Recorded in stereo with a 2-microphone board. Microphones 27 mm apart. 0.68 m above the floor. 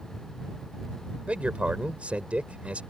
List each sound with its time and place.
1.2 s a man speaking: 55° right (ahead or behind)